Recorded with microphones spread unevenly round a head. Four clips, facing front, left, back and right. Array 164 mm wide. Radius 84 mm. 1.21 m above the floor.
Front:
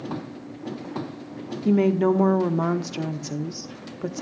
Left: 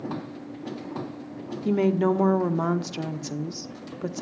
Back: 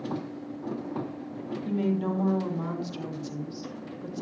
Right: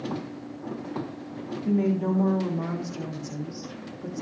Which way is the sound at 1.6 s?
35° left.